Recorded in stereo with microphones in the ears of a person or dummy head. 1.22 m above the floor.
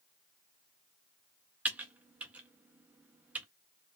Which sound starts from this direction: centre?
Typing on a keyboard, at 1.6 s.